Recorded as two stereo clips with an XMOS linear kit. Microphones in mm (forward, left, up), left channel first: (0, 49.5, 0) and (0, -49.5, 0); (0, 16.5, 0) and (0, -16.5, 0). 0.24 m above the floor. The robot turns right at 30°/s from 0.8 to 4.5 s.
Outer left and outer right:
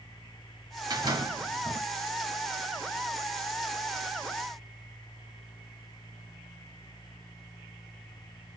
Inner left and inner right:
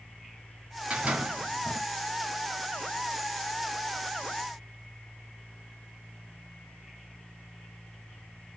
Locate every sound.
0.9 s a door slam: 35° right (ahead or behind), 3 m; by 1.8 s 60° right (ahead or behind), 3 m